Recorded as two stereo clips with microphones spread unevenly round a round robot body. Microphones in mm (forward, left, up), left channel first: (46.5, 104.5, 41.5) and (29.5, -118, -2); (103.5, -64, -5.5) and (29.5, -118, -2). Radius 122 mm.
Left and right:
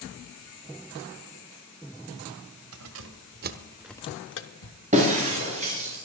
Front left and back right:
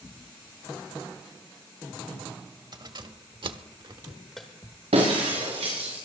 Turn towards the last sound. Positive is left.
turn(degrees=-160)